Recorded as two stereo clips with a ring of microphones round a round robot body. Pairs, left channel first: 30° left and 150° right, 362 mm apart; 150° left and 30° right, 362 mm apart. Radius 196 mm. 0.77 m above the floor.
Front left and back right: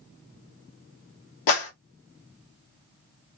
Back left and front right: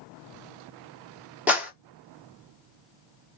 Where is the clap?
55° left, 1.6 m.